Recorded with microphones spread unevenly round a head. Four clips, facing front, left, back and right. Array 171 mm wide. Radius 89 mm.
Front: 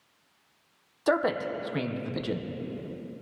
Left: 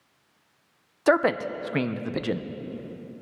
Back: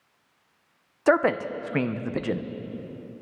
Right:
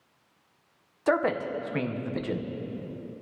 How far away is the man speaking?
About 0.7 m.